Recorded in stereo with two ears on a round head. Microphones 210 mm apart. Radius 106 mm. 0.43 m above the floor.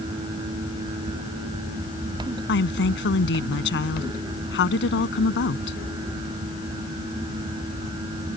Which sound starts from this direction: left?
A woman speaking, at 2.5 s.